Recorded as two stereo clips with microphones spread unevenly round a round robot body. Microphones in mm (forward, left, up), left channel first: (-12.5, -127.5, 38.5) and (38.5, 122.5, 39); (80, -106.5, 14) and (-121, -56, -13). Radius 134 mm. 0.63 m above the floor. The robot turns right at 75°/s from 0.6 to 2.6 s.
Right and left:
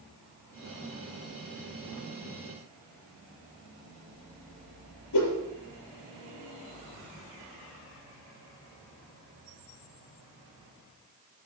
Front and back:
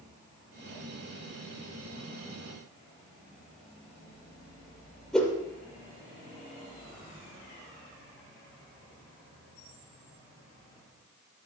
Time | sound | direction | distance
5.1 | a whoosh | 100° right | 7 m